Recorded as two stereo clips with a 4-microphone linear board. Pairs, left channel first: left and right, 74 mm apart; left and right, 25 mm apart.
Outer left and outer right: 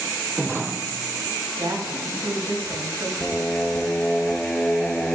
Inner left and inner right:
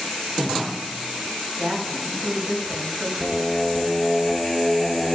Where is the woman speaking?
60° right (ahead or behind), 4 m.